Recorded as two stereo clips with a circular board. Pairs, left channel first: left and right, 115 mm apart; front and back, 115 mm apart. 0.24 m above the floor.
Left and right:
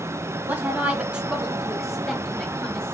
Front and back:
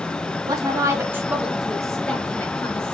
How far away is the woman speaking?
About 1.1 m.